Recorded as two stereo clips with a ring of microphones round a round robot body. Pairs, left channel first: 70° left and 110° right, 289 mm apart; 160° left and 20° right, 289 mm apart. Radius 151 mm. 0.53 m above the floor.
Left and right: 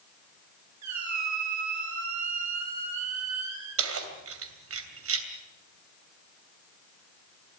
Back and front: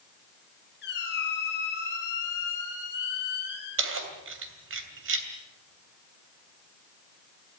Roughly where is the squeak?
Behind right.